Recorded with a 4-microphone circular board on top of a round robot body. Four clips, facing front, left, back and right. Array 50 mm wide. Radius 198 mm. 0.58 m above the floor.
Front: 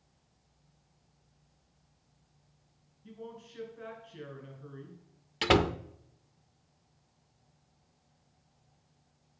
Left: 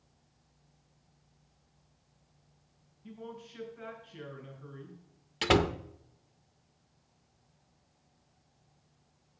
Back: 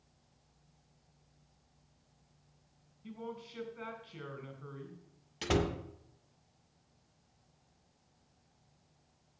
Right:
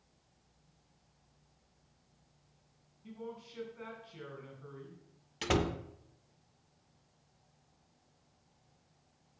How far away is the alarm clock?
No alarm clock in this recording.